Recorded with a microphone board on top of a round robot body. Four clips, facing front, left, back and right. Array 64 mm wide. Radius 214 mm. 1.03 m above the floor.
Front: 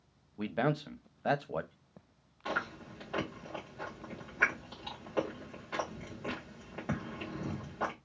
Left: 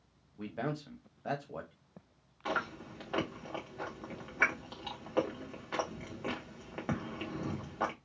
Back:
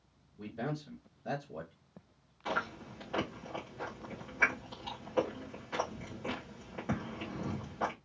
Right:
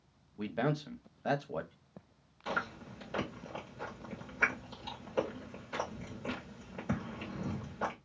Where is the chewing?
85° left, 1.6 m.